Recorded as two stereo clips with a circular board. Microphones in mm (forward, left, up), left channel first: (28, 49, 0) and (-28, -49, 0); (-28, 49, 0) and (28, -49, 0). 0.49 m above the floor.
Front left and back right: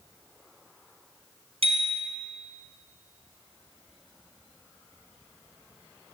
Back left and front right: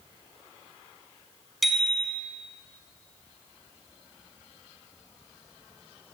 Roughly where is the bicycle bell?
Behind right.